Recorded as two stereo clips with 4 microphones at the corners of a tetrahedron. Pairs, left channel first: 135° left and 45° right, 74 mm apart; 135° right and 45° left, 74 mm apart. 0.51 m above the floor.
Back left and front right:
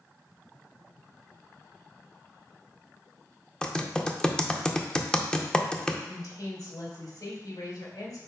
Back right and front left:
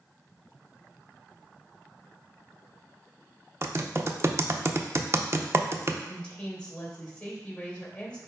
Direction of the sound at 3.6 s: 65° left.